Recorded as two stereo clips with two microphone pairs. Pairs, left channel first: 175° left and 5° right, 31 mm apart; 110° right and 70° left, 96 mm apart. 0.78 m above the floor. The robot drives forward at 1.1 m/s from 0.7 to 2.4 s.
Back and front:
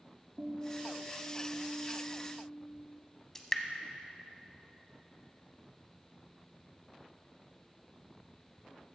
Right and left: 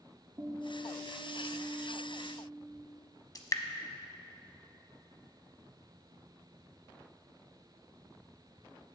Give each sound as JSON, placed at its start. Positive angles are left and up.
{"t": 0.4, "sound": "a guitar", "azimuth_deg": 25, "distance_m": 1.7}
{"t": 3.4, "sound": "dripping", "azimuth_deg": -110, "distance_m": 0.8}